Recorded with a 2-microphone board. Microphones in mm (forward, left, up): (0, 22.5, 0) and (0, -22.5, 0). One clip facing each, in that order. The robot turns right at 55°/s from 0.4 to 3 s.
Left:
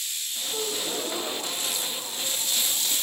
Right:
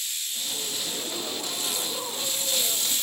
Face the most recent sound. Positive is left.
turn(degrees=-105)